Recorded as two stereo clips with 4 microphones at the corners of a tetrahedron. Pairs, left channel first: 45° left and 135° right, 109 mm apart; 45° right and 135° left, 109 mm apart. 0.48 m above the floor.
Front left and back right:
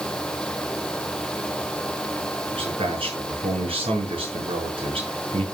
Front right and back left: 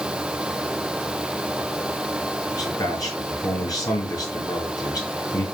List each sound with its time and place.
2.5 s a man speaking: 100° right, 5 m